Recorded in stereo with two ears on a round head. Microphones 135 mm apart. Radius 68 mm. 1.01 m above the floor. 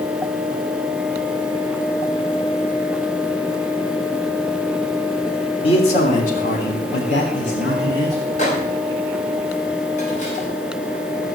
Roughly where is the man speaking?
Left.